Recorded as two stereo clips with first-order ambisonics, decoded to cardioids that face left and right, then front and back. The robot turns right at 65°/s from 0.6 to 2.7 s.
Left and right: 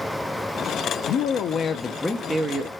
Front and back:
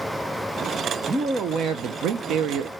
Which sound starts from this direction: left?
A man speaking, at 1.1 s.